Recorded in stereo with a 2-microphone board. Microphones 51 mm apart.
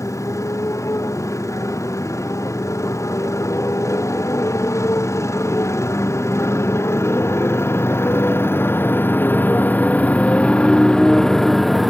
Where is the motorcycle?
85° left; by 11.9 s centre (ahead or behind).